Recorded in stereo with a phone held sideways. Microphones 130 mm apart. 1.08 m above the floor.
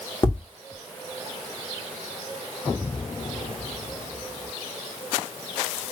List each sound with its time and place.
0.2 s tapping: 35° left (ahead or behind), 1.4 m